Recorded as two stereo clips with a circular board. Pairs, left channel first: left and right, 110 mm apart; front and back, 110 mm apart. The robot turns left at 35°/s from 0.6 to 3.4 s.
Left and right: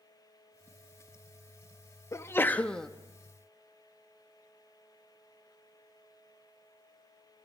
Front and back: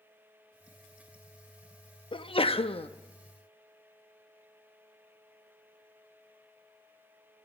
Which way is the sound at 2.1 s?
30° left.